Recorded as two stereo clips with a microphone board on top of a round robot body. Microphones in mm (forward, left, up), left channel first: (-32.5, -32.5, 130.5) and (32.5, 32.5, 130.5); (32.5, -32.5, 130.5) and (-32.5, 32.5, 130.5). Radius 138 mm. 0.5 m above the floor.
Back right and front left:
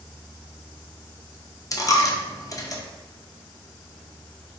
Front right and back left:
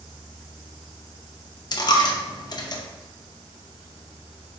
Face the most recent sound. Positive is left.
turn(degrees=-85)